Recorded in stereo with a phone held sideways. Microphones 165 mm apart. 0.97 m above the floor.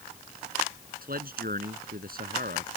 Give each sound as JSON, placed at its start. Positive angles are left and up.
{"t": 1.0, "sound": "a man speaking", "side_deg": -65}